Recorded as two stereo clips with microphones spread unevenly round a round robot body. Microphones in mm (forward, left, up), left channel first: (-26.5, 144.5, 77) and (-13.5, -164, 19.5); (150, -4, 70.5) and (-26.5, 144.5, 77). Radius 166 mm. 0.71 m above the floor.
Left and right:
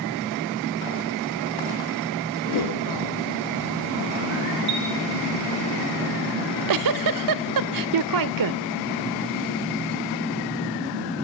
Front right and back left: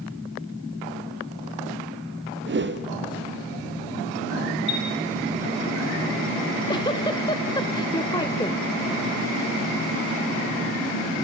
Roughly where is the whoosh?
Left.